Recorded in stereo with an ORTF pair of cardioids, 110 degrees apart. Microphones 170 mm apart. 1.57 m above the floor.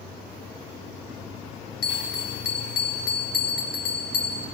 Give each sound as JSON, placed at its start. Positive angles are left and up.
{"t": 1.8, "sound": "a bell", "azimuth_deg": 65, "distance_m": 3.5}